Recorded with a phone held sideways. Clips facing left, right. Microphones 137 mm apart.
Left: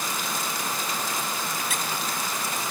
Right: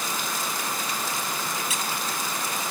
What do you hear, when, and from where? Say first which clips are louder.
1.7 s a squeak: even; 60° left (ahead or behind)